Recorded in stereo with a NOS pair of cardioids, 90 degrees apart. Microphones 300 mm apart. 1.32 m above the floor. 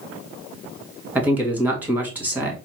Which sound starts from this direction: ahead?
A man speaking, at 1.1 s.